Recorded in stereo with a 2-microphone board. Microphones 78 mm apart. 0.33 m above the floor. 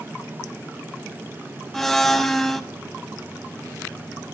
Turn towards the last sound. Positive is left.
turn(degrees=5)  # may be behind; listen again after turning